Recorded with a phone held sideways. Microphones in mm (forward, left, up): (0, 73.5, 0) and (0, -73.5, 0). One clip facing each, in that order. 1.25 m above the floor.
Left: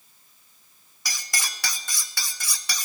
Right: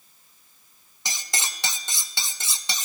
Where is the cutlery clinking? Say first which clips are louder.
Right 1 dB; 25° right (ahead or behind), 0.7 m.